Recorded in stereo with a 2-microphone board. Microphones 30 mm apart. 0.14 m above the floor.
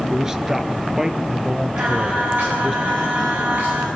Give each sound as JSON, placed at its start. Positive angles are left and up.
{"t": 0.1, "sound": "a man speaking", "side_deg": -20, "distance_m": 2.0}
{"t": 1.8, "sound": "singing", "side_deg": -75, "distance_m": 9.0}